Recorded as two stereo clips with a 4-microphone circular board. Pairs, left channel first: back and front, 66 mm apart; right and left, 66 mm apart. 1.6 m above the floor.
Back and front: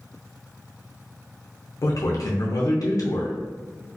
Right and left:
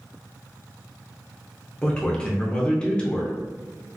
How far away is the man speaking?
About 0.6 m.